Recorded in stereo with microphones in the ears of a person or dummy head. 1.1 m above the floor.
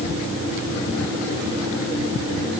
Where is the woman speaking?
No woman speaking in this recording.